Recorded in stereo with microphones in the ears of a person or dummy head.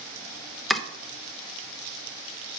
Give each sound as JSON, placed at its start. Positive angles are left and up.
{"t": 0.7, "sound": "chopping", "side_deg": 0, "distance_m": 1.0}